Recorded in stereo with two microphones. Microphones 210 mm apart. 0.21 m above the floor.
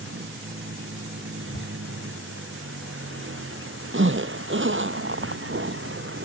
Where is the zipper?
70° right (ahead or behind).